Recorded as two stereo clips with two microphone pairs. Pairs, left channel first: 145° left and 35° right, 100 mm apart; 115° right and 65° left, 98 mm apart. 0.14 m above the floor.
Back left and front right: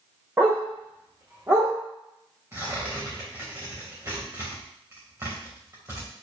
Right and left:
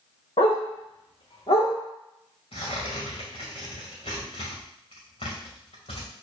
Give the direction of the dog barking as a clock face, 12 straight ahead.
3 o'clock.